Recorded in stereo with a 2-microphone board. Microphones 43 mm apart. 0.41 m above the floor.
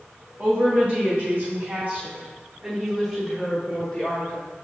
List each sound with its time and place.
0.4 s a woman speaking: 50° right (ahead or behind), 1.9 m; by 4.4 s 25° left (ahead or behind), 1.8 m